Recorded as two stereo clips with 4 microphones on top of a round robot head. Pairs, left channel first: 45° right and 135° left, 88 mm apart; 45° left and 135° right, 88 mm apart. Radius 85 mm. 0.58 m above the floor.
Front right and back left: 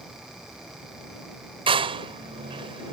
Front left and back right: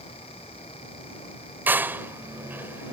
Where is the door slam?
155° left.